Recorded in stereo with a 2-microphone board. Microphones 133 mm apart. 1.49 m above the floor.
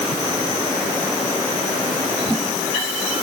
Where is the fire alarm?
No fire alarm in this recording.